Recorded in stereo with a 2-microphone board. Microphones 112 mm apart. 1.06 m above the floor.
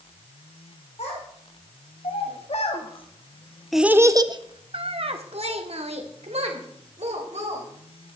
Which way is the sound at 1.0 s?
80° left.